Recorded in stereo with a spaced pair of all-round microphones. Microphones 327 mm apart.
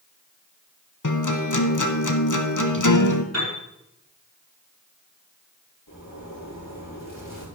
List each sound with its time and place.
1.0 s a guitar: 65° left (ahead or behind), 1.0 m
3.3 s a piano: 50° right (ahead or behind), 5 m
5.9 s a zipper: 75° left (ahead or behind), 5.5 m